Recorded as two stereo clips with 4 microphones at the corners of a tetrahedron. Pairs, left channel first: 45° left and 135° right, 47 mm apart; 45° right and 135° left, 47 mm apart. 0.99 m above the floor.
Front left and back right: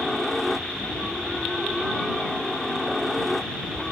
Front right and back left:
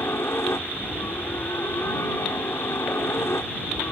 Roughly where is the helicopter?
Ahead right.